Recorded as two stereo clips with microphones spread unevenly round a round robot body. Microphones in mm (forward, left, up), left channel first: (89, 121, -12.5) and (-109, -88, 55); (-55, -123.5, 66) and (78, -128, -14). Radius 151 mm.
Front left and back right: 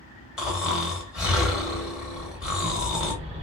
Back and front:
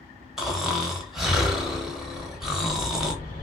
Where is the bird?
155° left, 1.2 m.